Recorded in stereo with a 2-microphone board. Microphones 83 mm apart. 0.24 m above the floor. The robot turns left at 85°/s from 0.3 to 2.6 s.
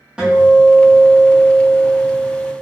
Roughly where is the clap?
I don't hear a clap.